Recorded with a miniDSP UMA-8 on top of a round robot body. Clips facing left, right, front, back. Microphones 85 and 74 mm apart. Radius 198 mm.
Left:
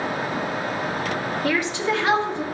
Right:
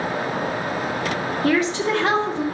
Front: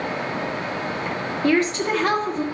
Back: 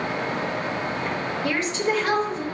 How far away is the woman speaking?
About 2 m.